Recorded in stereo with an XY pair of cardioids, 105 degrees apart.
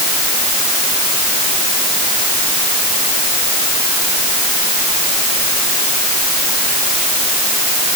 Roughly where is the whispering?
No whispering in this recording.